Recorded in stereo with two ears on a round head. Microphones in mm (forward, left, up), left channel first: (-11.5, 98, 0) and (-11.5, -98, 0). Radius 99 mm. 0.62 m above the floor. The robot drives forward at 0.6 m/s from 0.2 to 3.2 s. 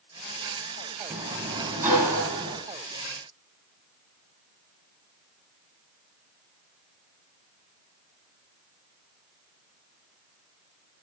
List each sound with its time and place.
1.1 s a sliding door: 15° right (ahead or behind), 5 m; by 2.6 s 10° right (ahead or behind), 6 m